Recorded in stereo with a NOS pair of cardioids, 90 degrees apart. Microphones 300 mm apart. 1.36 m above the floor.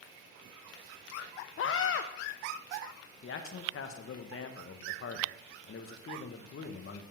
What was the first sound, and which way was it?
A scream, 45° left.